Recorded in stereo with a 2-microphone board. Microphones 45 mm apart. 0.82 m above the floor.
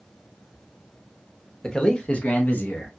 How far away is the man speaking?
About 1.0 m.